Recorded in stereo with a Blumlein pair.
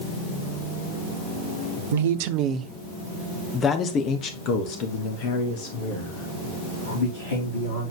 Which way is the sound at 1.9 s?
60° right.